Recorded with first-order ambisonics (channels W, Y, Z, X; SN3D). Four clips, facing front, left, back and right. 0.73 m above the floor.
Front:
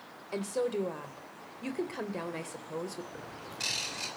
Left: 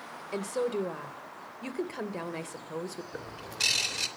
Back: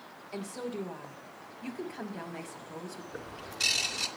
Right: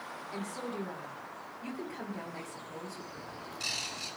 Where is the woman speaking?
55° left, 2.5 m.